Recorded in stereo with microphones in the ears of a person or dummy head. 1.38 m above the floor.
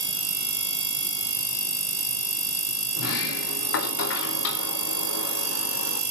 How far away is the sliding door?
About 1.5 m.